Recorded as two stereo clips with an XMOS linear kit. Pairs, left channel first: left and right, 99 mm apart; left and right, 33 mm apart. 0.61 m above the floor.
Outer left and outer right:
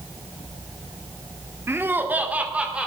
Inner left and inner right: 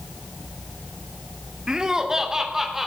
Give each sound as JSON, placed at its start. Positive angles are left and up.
{"t": 1.7, "sound": "laughter", "side_deg": -25, "distance_m": 1.4}